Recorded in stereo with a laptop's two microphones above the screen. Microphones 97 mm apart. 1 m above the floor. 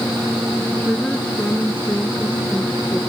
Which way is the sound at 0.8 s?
15° left (ahead or behind).